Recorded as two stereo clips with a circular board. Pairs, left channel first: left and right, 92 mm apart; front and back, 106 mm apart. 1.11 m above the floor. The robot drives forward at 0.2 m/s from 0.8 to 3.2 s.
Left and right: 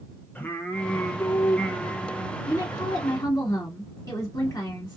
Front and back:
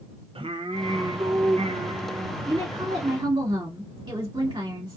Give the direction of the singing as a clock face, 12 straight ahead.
7 o'clock.